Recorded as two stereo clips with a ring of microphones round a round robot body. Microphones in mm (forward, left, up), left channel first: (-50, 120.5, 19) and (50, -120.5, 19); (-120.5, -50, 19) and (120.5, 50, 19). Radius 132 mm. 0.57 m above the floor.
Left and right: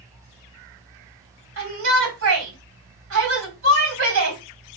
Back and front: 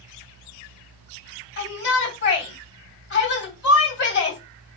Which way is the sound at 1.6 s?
105° right.